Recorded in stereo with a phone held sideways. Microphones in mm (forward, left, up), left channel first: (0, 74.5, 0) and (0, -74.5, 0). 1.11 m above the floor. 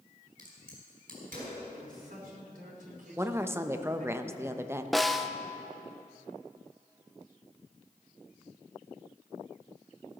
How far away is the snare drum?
About 0.6 m.